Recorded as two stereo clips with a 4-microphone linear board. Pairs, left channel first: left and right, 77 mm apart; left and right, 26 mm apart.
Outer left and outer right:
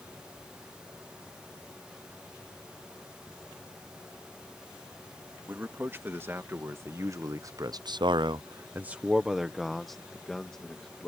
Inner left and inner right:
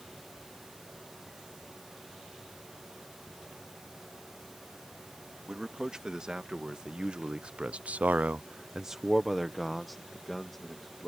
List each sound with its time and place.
5.5 s a man speaking: 25° right (ahead or behind); by 11.1 s 10° left (ahead or behind)